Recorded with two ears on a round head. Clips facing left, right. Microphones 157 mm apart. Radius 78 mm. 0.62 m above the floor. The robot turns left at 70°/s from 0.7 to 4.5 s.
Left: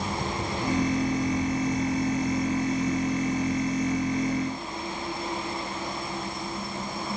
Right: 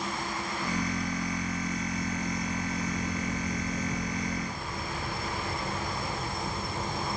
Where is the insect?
115° left; by 7.2 s 150° right.